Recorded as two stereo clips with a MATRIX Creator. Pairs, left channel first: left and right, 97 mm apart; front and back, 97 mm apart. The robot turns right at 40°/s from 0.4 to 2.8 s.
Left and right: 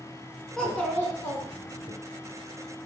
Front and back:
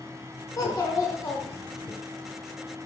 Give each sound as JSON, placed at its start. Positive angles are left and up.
{"t": 0.6, "sound": "a child speaking", "azimuth_deg": 10, "distance_m": 1.0}